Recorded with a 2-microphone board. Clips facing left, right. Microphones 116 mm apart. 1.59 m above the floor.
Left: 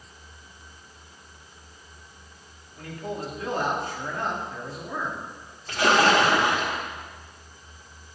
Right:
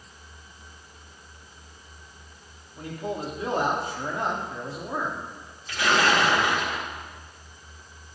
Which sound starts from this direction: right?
A man speaking, at 2.8 s.